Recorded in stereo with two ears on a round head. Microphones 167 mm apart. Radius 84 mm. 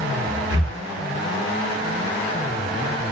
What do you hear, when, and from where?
0.5 s breathing: 70° right (ahead or behind), 0.8 m